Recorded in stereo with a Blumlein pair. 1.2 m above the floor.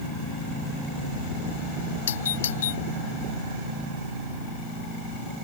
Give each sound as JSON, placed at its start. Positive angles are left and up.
{"t": 2.1, "sound": "a doorbell", "azimuth_deg": 60}